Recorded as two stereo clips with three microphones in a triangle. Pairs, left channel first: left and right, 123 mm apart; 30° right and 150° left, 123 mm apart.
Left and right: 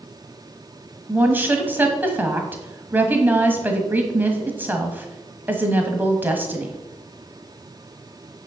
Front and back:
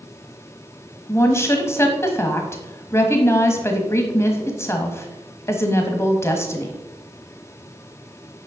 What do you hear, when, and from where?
1.1 s a woman speaking: 40° right, 1.3 m